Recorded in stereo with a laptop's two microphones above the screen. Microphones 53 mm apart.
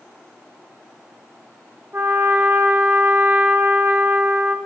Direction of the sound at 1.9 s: 45° right (ahead or behind).